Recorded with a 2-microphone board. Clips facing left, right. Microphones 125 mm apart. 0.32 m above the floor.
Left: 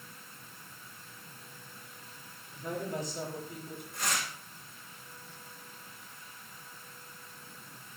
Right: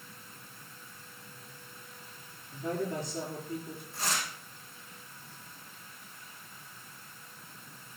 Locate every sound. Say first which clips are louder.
2.5 s a woman speaking: right 3 dB; 60° right (ahead or behind), 8 m
3.9 s tearing paper: even; 35° right (ahead or behind), 3.5 m